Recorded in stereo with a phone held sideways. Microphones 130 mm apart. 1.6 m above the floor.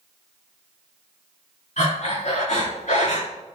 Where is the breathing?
65° left (ahead or behind), 4 m.